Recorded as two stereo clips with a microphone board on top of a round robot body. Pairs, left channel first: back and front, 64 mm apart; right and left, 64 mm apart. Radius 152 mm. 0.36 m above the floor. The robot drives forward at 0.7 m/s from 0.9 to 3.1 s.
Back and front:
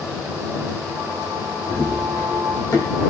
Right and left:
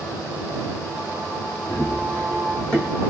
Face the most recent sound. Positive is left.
turn(degrees=-170)